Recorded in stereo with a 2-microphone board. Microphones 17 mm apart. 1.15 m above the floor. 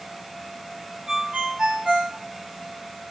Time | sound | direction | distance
1.1 | a ringtone | 55° right (ahead or behind) | 4 m